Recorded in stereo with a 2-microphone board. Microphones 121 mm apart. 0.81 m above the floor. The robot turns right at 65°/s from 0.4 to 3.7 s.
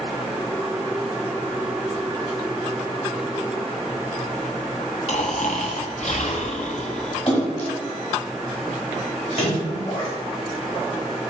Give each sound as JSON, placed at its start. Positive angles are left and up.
{"t": 5.1, "sound": "snoring", "side_deg": 60, "distance_m": 0.6}
{"t": 7.3, "sound": "a splash", "side_deg": 60, "distance_m": 1.6}